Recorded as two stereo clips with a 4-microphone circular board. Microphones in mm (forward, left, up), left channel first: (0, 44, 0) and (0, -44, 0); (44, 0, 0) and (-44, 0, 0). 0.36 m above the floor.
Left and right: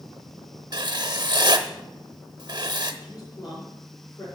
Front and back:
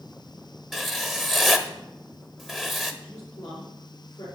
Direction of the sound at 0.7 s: 90° right.